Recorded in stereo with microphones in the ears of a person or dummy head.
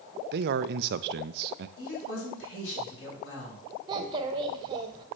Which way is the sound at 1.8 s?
85° left.